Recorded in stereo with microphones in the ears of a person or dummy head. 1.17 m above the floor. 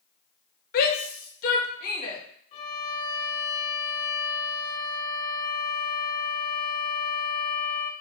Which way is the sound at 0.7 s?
50° left (ahead or behind).